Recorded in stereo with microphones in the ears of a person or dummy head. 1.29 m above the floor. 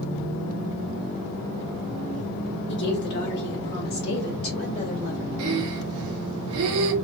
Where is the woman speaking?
55° left (ahead or behind), 1.4 m; by 5.3 s 50° left (ahead or behind), 2.5 m.